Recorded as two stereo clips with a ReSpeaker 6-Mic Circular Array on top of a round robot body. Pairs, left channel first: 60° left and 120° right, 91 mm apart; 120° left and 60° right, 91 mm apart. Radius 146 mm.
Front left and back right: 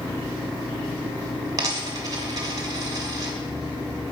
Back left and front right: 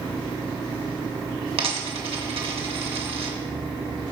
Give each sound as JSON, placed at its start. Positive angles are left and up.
{"t": 1.6, "sound": "a dropped coin", "azimuth_deg": -70, "distance_m": 2.0}